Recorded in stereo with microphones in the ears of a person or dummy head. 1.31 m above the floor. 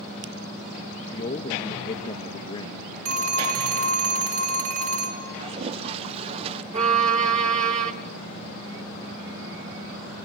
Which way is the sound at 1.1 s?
30° left (ahead or behind).